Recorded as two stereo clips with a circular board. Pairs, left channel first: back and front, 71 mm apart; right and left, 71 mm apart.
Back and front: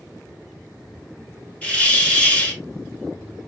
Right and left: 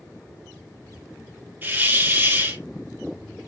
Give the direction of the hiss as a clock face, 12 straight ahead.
8 o'clock.